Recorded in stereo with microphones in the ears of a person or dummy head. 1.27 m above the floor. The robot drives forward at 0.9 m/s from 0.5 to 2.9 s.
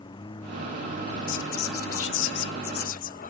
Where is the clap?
I don't hear a clap.